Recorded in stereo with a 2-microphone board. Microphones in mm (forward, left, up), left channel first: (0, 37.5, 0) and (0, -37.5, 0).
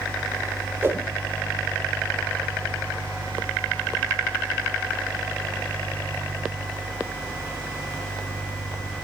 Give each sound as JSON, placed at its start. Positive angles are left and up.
{"t": 0.8, "sound": "a whoosh", "side_deg": -30, "distance_m": 1.6}